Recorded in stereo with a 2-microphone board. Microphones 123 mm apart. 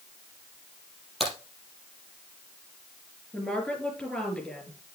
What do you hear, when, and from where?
1.2 s a crack: centre (ahead or behind), 4.5 m
3.3 s a woman speaking: 5° left (ahead or behind), 4 m